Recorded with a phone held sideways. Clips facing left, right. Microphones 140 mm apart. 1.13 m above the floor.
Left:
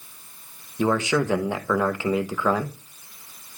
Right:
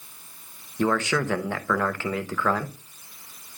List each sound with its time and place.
0.8 s a man speaking: 15° left (ahead or behind), 0.9 m